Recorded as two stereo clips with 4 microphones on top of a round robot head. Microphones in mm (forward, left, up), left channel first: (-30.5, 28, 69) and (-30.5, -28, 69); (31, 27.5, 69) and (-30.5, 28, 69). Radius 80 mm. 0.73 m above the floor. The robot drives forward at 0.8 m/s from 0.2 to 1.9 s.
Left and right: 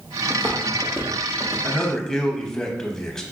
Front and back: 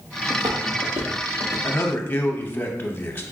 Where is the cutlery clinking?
I don't hear cutlery clinking.